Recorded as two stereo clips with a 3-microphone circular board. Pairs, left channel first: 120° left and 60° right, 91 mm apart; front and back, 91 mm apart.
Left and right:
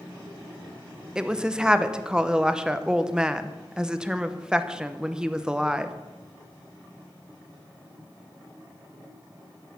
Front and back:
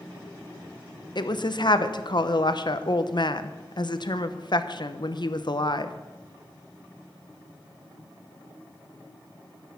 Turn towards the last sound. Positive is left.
turn(degrees=20)